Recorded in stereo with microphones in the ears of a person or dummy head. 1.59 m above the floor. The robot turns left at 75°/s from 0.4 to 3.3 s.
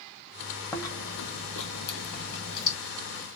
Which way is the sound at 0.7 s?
170° left.